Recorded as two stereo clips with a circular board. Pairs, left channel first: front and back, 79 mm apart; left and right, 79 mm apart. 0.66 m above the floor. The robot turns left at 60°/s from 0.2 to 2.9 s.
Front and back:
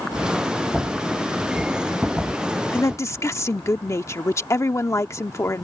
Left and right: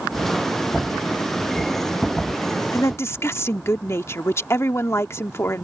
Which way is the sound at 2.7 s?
55° left.